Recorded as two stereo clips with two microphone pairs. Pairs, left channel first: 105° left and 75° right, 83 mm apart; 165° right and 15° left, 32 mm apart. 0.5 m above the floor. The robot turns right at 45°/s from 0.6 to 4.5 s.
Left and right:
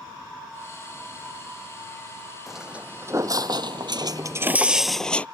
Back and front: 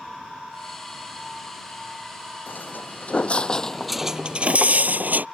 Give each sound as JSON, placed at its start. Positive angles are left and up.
{"t": 2.5, "sound": "footsteps", "azimuth_deg": -165}